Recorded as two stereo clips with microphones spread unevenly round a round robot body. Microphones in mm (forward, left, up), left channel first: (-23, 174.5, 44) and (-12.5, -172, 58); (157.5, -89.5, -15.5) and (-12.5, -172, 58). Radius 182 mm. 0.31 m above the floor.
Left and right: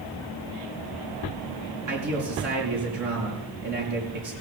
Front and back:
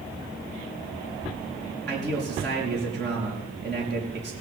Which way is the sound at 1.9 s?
125° right.